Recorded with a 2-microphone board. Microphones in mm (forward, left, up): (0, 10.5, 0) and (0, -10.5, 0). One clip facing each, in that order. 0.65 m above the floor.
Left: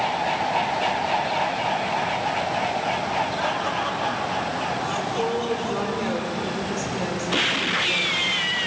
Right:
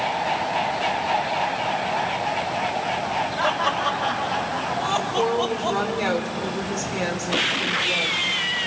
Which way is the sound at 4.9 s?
25° right (ahead or behind).